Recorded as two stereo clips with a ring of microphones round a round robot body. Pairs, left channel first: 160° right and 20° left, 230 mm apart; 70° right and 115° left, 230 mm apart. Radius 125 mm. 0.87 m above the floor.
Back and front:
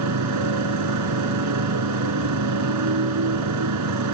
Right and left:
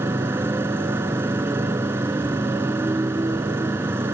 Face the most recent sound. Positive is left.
turn(degrees=30)